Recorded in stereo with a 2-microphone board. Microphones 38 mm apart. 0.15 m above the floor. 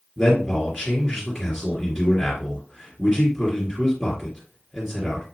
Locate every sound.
0.2 s a man speaking: centre (ahead or behind), 2.5 m